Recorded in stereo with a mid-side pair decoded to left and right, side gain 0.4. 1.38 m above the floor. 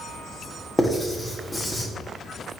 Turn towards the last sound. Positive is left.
turn(degrees=20)